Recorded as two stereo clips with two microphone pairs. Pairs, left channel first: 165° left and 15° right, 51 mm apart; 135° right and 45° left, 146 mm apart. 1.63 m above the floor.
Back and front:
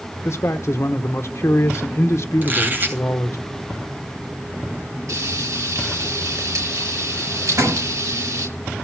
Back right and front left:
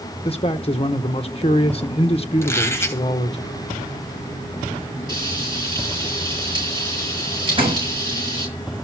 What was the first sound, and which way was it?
A man speaking, straight behind.